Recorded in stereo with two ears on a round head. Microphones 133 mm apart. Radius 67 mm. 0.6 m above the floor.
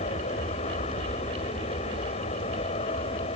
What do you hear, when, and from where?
0.0 s an aircraft: 45° left (ahead or behind); by 3.4 s 40° left (ahead or behind)